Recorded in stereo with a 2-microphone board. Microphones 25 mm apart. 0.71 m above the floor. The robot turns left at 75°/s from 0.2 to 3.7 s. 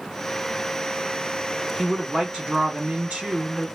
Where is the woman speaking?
Straight ahead, 1.9 m; by 3.7 s 145° right, 1.9 m.